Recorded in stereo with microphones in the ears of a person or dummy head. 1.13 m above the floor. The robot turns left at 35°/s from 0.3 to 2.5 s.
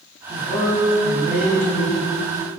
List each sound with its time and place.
0.3 s a man speaking: 10° right, 1.2 m; by 2.1 s 75° right, 1.2 m